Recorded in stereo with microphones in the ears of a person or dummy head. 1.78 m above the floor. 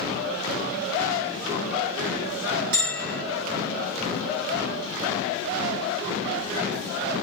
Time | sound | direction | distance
2.7 | a bell | 55° right (ahead or behind) | 2.5 m